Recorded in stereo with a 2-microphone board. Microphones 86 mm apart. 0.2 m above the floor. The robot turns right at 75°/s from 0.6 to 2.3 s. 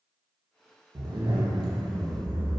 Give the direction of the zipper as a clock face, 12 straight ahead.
4 o'clock.